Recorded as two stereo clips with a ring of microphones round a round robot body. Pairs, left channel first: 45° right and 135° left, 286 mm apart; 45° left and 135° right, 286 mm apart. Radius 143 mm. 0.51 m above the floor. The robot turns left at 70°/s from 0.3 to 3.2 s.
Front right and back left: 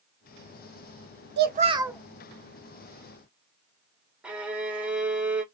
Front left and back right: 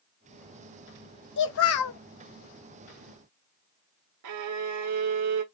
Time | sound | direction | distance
1.4 | a child speaking | 90° left | 0.7 m
4.2 | a violin | 140° right | 1.1 m